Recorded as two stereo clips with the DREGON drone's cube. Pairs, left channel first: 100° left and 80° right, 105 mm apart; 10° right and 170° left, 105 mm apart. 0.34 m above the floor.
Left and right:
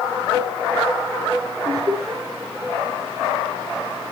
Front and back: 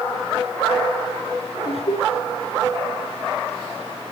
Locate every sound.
1.6 s laughter: 25° right, 5 m